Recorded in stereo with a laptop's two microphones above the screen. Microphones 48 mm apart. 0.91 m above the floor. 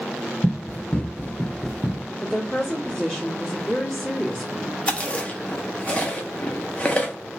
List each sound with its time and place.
0.4 s running footsteps: 40° left (ahead or behind), 1.1 m; by 2.0 s 15° right (ahead or behind), 0.9 m
2.2 s a woman speaking: 15° left (ahead or behind), 2.0 m
4.9 s chewing: 25° left (ahead or behind), 1.1 m